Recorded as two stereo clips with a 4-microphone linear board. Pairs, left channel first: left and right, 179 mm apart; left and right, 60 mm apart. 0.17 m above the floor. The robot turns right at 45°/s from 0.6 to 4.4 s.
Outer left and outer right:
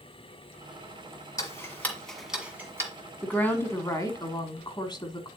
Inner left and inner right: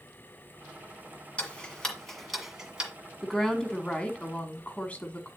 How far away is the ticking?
About 1.7 m.